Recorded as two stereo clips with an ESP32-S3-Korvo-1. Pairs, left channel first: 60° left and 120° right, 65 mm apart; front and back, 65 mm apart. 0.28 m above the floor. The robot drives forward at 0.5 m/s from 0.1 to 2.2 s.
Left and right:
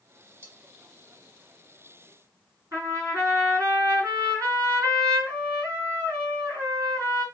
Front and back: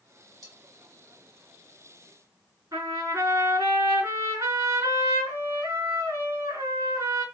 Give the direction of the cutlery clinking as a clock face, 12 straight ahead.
6 o'clock.